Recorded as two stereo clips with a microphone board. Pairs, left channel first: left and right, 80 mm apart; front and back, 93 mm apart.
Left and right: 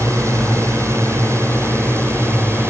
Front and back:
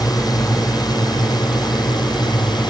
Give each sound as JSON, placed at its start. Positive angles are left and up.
{"t": 0.0, "sound": "a drone", "azimuth_deg": -40}